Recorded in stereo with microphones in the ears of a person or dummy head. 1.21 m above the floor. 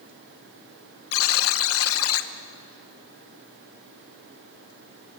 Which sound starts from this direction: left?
A buzzer, at 1.1 s.